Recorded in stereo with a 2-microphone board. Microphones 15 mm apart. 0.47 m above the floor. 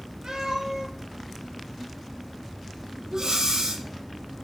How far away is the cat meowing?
About 8 m.